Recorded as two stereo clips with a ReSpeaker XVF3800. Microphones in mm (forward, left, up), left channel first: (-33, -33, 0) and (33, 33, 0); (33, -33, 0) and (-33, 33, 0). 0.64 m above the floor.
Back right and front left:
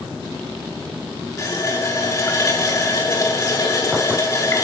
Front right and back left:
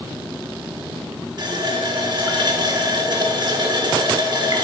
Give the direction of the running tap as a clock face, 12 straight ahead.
6 o'clock.